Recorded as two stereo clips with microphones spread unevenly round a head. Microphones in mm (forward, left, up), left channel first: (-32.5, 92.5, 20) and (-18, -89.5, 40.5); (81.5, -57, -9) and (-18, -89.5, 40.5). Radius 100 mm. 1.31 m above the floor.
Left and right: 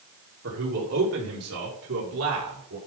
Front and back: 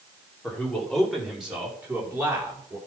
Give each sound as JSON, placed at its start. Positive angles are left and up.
{"t": 0.4, "sound": "a man speaking", "azimuth_deg": -60, "distance_m": 4.0}